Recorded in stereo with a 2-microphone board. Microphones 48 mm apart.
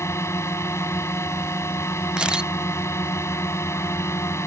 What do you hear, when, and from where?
0.0 s a drone: 70° left (ahead or behind)
2.2 s a camera shutter: 20° right (ahead or behind)